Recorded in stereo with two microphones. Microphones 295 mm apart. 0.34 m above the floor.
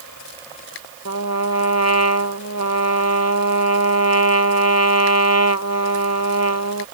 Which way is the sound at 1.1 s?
60° left (ahead or behind).